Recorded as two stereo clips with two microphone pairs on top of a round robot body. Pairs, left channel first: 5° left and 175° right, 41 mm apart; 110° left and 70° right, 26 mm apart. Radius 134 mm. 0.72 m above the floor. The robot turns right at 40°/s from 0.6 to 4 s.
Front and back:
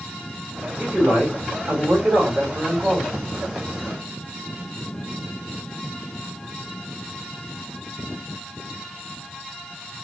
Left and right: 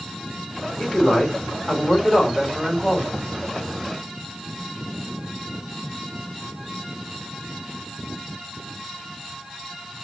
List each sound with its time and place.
0.8 s a man speaking: 150° left, 3 m; by 3.2 s 115° right, 3 m